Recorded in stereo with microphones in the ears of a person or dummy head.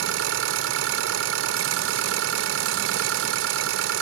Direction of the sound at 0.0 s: 70° right (ahead or behind).